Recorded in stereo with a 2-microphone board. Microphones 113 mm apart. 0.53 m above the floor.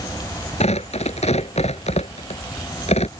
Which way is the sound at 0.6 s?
90° left.